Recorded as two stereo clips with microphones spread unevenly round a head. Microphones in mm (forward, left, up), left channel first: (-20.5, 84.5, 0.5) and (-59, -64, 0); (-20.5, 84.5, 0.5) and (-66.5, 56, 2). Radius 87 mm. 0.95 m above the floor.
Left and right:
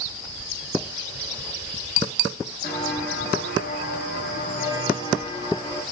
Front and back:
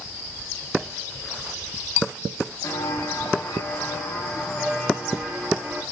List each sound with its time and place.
2.6 s footsteps: 60° left, 3 m; by 5.8 s 130° left, 3 m